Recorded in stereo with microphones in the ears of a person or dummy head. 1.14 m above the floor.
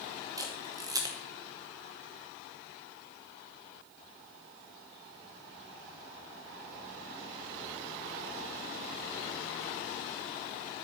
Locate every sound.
0.4 s a camera shutter: 20° right (ahead or behind), 0.9 m